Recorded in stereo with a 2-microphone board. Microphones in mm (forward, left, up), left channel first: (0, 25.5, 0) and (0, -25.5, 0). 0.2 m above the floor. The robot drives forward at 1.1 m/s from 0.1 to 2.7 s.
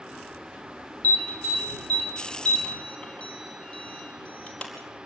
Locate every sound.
1.0 s an alarm: 30° left (ahead or behind), 2.5 m; by 4.8 s 20° left (ahead or behind), 4 m